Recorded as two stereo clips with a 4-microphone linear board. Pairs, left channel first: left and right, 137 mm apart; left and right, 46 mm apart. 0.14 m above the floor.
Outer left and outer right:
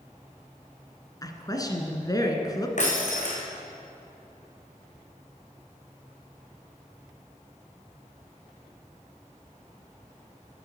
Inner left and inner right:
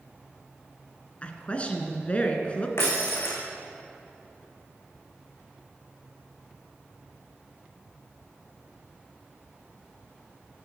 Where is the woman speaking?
25° left (ahead or behind), 2.0 m.